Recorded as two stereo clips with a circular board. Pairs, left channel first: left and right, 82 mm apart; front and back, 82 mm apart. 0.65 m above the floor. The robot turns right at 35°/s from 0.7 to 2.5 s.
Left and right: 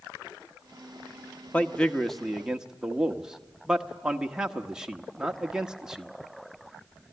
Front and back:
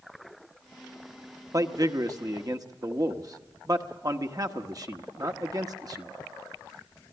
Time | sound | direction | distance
1.5 | a man speaking | 160° left | 1.2 m